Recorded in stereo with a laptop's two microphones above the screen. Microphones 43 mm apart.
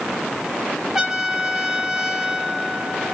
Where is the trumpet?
10° right (ahead or behind), 6.5 m.